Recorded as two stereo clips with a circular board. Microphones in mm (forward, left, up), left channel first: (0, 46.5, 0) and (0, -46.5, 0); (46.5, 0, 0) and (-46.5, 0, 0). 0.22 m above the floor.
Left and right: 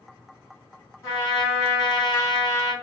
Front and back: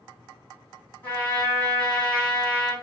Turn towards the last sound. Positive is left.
turn(degrees=60)